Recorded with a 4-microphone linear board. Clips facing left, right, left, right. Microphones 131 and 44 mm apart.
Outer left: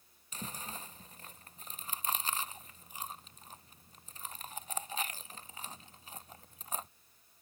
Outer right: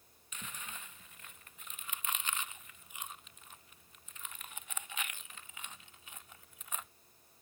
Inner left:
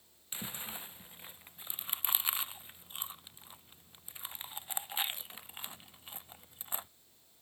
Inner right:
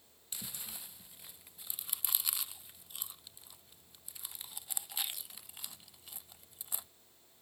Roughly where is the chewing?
Left.